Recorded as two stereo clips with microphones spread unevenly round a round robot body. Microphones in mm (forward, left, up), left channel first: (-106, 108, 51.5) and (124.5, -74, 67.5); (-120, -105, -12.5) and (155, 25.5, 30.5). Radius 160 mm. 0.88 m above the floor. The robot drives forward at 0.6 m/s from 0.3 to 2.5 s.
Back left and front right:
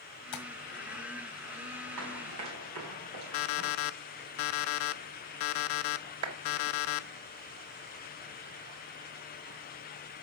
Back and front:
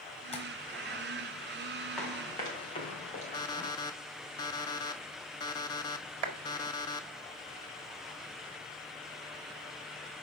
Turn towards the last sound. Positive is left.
turn(degrees=5)